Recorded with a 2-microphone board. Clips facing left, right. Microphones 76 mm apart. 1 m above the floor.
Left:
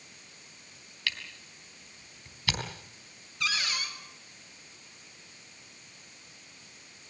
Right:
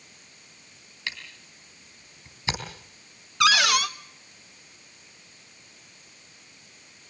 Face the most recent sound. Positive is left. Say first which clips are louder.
# right 13 dB
turn(degrees=-65)  # may be behind; listen again after turning